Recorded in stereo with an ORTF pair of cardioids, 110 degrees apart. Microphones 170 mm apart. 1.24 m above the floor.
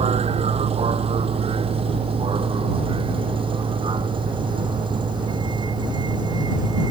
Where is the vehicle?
40° right; by 6.9 s 25° right.